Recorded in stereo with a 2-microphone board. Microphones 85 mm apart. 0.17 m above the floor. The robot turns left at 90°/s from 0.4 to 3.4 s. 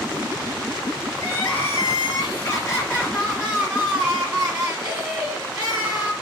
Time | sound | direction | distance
1.2 | crying | 170° right | 2 m